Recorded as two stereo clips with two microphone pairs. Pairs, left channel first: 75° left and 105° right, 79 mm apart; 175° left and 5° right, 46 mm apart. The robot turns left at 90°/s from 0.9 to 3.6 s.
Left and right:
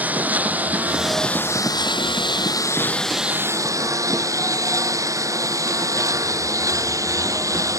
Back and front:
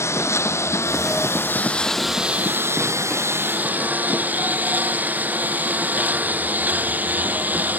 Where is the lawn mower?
175° right; by 7.8 s 60° right.